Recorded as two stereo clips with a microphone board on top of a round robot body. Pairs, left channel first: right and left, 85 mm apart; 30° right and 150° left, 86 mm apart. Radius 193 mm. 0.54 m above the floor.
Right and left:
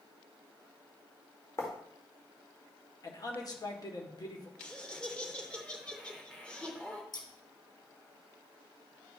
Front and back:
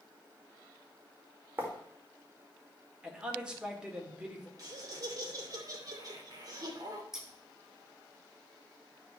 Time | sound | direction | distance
1.6 | writing | 145° right | 2 m
3.0 | a man speaking | 130° right | 1.9 m
4.6 | laughter | 170° right | 2.5 m
7.1 | scissors | 125° right | 1.5 m